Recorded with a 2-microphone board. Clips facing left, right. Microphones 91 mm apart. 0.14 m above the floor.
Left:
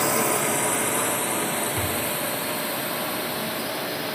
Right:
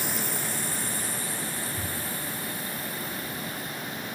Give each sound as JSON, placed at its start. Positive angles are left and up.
{"t": 0.0, "sound": "a drone", "side_deg": 80}
{"t": 1.8, "sound": "a thud", "side_deg": 85}